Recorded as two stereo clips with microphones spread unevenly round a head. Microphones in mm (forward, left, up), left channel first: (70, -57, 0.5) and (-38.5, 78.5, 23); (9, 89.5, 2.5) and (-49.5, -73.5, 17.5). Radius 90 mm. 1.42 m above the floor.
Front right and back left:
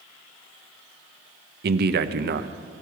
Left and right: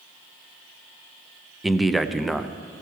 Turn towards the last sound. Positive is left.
turn(degrees=155)